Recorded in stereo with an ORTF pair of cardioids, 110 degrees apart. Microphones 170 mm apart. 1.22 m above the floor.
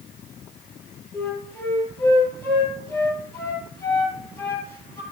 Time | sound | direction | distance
1.1 | a flute | 15° left | 6.5 m